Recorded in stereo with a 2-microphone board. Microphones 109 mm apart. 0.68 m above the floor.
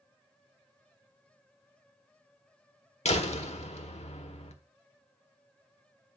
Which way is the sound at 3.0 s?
80° left.